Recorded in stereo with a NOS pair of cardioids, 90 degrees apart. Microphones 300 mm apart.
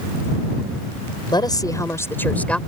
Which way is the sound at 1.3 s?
15° left.